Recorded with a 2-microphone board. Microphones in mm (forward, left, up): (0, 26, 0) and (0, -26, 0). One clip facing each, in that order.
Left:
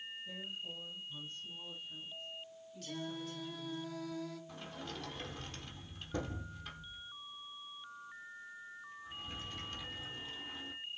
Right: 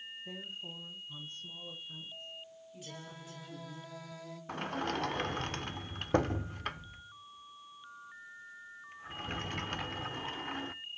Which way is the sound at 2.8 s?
15° right (ahead or behind).